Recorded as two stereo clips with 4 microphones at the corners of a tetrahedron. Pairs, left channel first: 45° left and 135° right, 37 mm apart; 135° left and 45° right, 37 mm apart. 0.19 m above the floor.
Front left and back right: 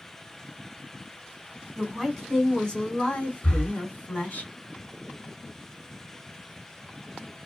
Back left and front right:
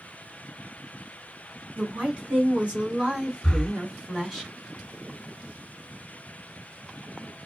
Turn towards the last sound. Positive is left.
turn(degrees=60)